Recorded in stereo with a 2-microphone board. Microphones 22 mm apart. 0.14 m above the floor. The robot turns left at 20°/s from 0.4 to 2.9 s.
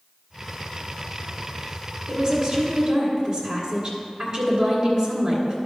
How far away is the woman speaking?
About 1.9 m.